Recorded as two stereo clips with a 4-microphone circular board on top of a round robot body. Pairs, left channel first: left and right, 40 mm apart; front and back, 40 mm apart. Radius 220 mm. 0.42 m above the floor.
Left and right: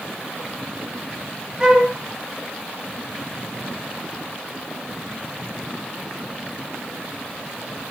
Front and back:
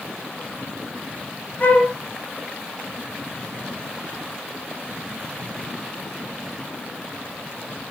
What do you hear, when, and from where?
1.6 s a flute: 25° right, 0.7 m